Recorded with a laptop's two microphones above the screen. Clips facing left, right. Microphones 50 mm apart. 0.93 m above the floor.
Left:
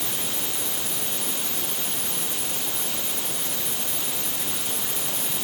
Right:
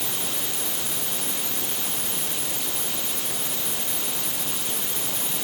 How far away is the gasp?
No gasp in this recording.